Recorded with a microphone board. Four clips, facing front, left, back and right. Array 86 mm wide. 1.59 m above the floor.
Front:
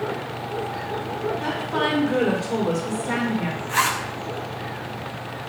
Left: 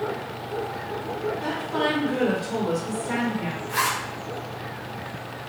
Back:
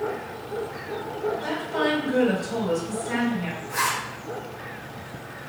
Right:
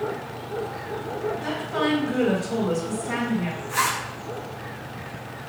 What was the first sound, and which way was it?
A woman speaking, 15° left.